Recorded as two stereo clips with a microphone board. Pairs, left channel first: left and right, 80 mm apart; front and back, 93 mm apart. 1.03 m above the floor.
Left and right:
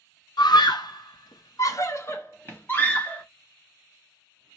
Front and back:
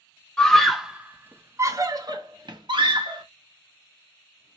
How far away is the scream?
About 0.9 m.